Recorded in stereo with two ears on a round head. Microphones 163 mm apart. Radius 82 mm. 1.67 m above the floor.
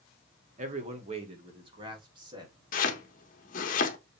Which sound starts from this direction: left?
Chopping, at 2.7 s.